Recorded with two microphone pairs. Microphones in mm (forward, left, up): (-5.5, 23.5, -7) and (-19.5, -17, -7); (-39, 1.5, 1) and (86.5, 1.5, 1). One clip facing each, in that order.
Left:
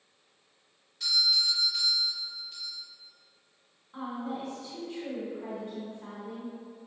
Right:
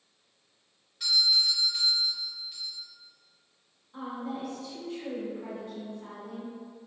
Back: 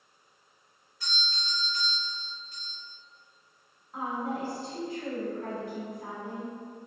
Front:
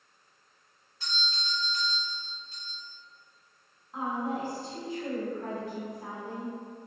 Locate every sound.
1.0 s a doorbell: 30° right, 1.9 m
3.9 s a woman speaking: 60° left, 1.3 m